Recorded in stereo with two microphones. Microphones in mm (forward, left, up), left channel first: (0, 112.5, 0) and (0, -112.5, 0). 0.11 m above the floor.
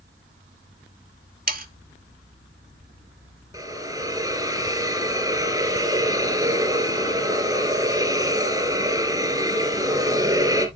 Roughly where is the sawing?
Right.